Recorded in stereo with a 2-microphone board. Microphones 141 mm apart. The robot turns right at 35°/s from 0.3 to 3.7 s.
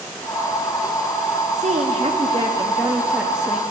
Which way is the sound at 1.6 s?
70° right.